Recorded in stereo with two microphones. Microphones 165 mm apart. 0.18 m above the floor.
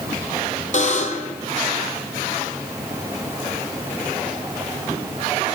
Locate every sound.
0.7 s a buzzer: 50° left (ahead or behind), 1.0 m